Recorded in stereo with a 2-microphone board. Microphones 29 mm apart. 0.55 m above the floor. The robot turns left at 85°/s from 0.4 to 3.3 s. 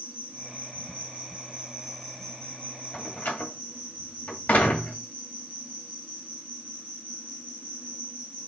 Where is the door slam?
50° left (ahead or behind), 2.5 m; by 5.0 s 75° left (ahead or behind), 2.5 m.